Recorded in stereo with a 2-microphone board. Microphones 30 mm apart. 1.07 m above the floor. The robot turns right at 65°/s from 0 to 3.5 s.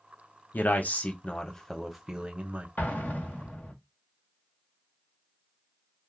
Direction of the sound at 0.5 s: 95° left.